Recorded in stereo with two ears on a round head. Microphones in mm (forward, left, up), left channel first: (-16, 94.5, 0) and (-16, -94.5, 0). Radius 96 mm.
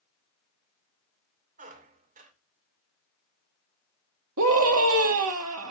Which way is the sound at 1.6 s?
40° right (ahead or behind).